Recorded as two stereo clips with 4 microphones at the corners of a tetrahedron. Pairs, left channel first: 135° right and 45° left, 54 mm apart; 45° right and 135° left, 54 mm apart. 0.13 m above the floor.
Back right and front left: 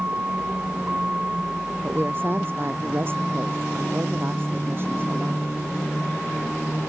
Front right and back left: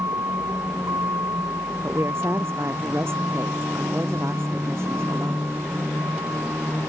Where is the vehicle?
105° left; by 6.9 s 135° left.